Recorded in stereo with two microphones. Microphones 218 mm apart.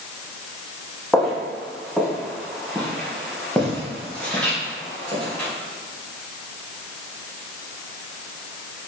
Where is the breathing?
No breathing in this recording.